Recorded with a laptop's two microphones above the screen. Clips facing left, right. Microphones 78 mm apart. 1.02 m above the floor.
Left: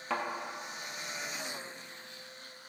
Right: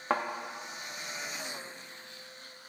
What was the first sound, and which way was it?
A thud, 50° right (ahead or behind).